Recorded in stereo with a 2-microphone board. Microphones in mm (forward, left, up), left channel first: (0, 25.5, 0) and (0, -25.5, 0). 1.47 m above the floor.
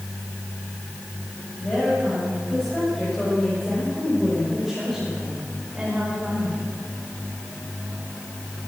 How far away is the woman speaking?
About 8.5 m.